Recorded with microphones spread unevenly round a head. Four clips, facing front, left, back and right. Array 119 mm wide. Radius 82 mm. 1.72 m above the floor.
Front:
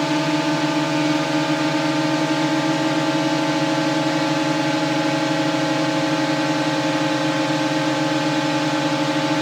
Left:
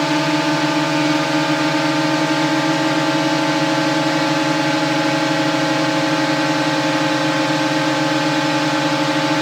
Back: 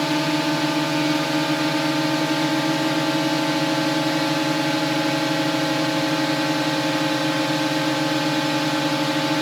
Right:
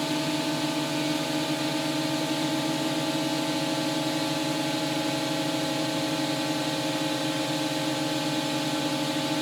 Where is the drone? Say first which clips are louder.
Left 11 dB, front 2 dB; 105° left.